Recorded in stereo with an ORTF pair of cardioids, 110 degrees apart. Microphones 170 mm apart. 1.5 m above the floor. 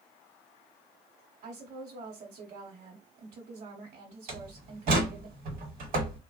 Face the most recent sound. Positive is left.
turn(degrees=-60)